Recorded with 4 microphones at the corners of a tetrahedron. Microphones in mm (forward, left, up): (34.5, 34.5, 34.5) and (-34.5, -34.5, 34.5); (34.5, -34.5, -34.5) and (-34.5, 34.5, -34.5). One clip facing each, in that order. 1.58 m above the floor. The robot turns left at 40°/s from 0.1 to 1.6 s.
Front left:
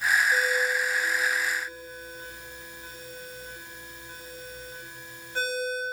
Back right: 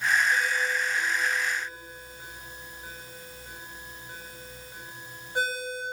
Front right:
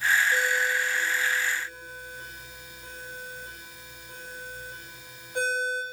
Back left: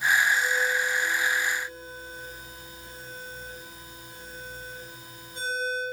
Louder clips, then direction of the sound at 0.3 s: Front left 2 dB, even; 10° right.